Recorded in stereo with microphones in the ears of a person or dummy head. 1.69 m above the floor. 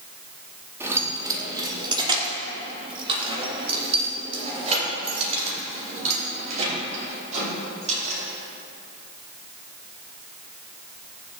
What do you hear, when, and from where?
0.8 s keys jangling: 15° right (ahead or behind), 1.8 m; by 8.2 s 40° right (ahead or behind), 5.5 m